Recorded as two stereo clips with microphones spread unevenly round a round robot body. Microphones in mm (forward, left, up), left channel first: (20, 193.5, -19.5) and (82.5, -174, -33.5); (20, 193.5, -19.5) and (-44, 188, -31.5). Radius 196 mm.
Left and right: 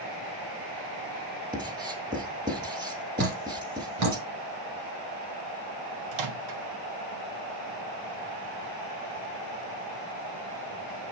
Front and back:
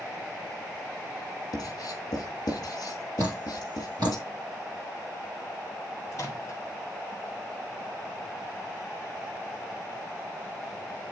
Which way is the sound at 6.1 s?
70° right.